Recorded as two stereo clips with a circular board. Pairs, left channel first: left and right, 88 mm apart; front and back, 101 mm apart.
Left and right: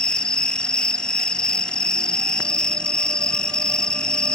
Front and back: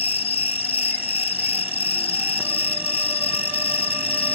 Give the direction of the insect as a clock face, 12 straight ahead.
12 o'clock.